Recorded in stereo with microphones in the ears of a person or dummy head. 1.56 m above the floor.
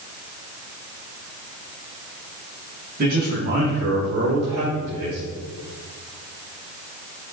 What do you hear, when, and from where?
3.0 s a man speaking: 50° right (ahead or behind), 3.5 m; by 5.2 s 60° right (ahead or behind), 4 m